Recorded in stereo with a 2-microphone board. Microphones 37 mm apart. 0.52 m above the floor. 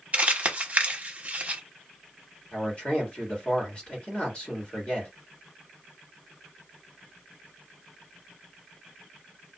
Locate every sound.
0.1 s crumpling: 35° right (ahead or behind), 0.9 m
2.5 s a man speaking: 30° left (ahead or behind), 1.6 m